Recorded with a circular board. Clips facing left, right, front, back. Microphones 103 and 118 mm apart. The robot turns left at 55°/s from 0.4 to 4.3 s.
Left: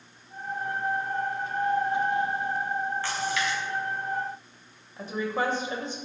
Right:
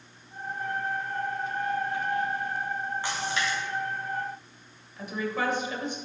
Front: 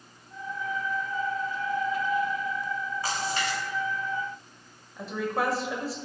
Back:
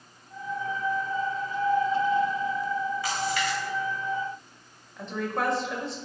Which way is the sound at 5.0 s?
85° left.